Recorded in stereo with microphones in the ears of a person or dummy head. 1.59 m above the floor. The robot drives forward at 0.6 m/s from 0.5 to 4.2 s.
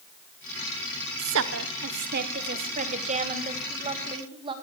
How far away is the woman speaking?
About 1.2 m.